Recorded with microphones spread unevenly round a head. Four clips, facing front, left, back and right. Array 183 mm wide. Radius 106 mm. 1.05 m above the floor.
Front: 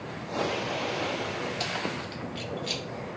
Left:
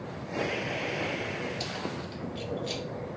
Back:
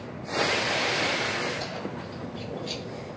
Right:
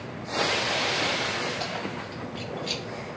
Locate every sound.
1.6 s keys jangling: 40° right, 2 m; by 2.8 s 75° right, 1.6 m